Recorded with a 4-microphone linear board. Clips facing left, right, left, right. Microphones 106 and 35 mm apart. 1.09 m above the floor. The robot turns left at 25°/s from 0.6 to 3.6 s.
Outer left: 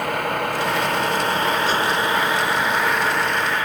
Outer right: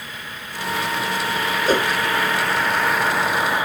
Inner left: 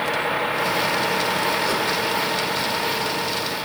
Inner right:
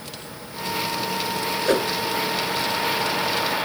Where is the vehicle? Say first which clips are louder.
Outer left 14 dB, inner left 16 dB; 60° left; by 3.7 s 15° right.